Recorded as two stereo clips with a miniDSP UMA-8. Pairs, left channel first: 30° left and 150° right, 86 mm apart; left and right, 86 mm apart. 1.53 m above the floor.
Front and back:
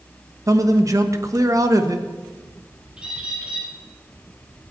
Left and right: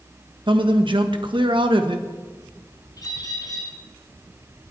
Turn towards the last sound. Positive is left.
turn(degrees=135)